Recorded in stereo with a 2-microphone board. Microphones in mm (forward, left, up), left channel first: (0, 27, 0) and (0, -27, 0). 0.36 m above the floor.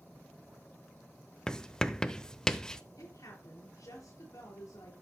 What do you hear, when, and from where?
1.5 s writing: 10° left (ahead or behind), 0.7 m
3.0 s a woman speaking: 80° left, 5.5 m